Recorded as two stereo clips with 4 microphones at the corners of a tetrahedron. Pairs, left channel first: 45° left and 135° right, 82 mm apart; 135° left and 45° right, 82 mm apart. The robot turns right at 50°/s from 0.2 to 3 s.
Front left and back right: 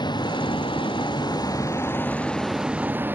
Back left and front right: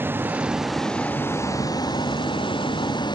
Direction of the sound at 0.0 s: 20° left.